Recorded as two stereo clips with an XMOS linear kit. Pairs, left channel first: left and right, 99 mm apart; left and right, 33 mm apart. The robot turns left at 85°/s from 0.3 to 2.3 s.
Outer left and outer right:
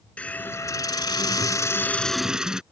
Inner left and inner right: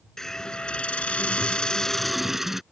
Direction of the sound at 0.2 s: 160° left.